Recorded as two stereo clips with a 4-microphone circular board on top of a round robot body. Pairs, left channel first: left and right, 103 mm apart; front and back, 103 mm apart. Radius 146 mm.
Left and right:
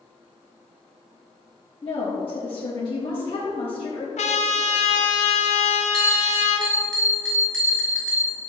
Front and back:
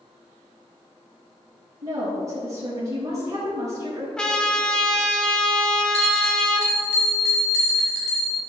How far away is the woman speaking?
About 4 m.